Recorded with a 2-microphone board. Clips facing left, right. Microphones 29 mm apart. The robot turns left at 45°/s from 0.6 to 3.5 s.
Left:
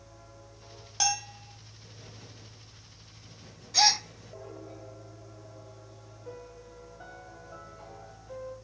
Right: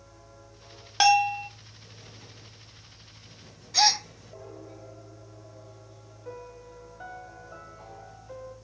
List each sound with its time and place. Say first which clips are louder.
1.0 s a bell: right 12 dB; 45° right (ahead or behind), 1.0 m; by 1.5 s 65° right (ahead or behind), 1.0 m
3.7 s a gasp: right 1 dB; 10° right (ahead or behind), 1.1 m
6.2 s a piano: right 3 dB; 20° right (ahead or behind), 4 m